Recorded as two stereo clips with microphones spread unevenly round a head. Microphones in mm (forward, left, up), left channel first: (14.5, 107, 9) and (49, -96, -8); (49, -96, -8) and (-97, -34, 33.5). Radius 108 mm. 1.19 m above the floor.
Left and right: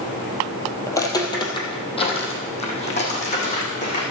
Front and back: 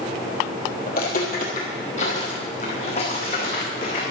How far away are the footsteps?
About 1.9 m.